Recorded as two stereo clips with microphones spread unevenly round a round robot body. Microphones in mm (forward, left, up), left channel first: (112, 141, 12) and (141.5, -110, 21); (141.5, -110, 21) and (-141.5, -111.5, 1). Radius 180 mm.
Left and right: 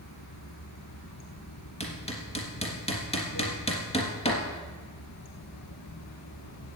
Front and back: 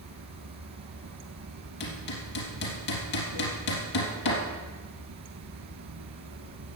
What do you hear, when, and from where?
0.0 s running water: 145° left, 1.3 m
1.8 s hammering: 30° left, 3.5 m